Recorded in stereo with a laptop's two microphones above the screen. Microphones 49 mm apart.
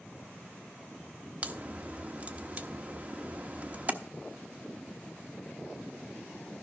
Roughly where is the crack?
Right.